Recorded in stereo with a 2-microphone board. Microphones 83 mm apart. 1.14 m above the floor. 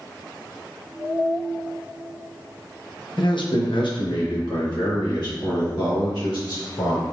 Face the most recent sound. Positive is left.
turn(degrees=75)  # may be behind; listen again after turning